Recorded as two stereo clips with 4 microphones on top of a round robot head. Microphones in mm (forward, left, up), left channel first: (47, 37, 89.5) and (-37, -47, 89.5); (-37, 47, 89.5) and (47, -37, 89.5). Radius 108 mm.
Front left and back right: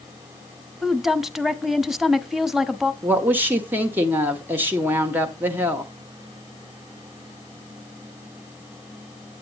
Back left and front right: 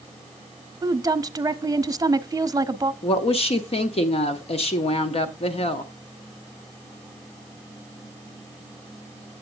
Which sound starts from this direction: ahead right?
A woman speaking, at 0.8 s.